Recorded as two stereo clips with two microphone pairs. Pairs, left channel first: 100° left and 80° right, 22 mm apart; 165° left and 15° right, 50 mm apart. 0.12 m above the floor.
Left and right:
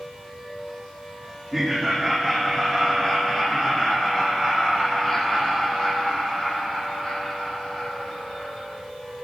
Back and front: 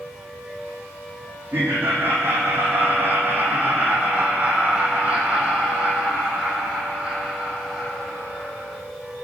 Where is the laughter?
25° left, 5.5 m; by 8.8 s 70° left, 6 m.